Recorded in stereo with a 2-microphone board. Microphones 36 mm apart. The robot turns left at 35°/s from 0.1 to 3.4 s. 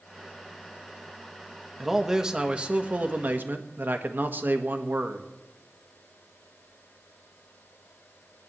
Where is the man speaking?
5° right, 1.5 m; by 5.3 s 60° right, 1.5 m.